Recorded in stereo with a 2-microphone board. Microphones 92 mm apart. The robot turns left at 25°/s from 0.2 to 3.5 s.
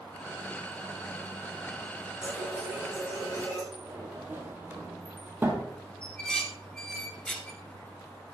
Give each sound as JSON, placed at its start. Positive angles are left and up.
{"t": 2.2, "sound": "a running tap", "azimuth_deg": 180, "distance_m": 5.5}
{"t": 3.7, "sound": "a sliding door", "side_deg": -25, "distance_m": 1.7}
{"t": 6.0, "sound": "dishes clattering", "side_deg": 10, "distance_m": 1.4}